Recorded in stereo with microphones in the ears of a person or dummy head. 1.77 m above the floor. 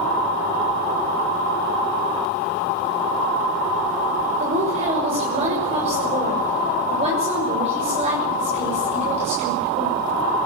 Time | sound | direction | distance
4.4 | a woman speaking | 35° right (ahead or behind) | 6.5 m